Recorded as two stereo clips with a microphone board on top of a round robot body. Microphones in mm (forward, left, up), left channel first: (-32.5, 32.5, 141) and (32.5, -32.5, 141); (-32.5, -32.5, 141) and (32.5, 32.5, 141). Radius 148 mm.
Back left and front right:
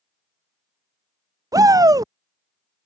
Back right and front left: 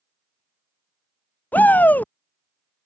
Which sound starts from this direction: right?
A shout, at 1.5 s.